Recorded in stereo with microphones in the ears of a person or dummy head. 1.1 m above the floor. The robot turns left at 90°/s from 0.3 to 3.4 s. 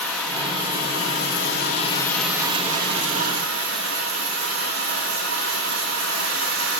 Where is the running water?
175° left, 2 m; by 6.8 s 105° right, 2 m.